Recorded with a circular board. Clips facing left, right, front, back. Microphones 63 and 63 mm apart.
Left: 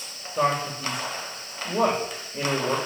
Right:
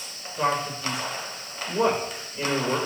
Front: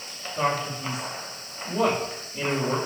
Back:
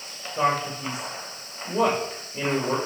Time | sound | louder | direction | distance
0.4 | a man speaking | left 1 dB, back 2 dB | 120° left | 7 m